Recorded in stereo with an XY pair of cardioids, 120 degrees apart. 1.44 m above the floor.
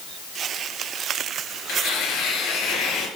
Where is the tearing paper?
65° left, 3.5 m.